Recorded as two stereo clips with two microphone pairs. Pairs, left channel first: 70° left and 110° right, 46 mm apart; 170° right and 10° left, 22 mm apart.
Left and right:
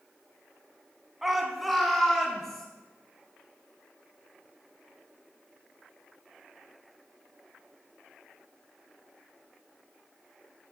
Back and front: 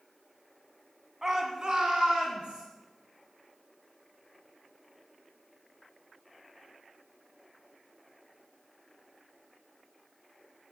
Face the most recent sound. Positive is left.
turn(degrees=-10)